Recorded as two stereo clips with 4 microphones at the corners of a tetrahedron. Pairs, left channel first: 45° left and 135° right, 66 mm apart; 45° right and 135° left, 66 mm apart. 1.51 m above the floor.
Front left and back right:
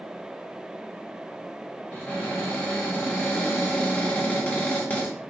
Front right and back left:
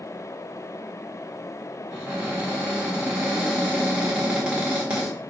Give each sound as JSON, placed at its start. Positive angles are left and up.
{"t": 1.9, "sound": "a cupboard door", "azimuth_deg": 80, "distance_m": 1.2}